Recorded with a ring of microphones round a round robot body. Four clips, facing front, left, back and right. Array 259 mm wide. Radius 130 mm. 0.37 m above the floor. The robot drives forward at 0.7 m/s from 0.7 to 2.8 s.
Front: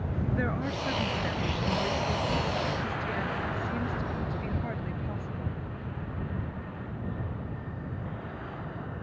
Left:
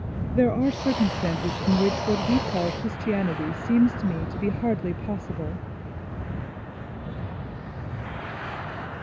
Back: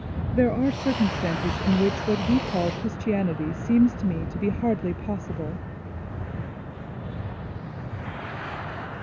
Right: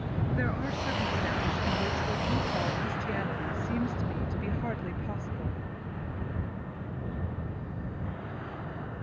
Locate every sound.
0.3 s a woman speaking: 130° left; by 5.7 s 140° left